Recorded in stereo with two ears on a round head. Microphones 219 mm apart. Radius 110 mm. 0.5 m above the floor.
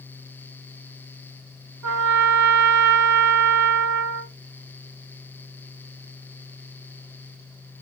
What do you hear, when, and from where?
1.8 s a trumpet: 70° right (ahead or behind), 1.2 m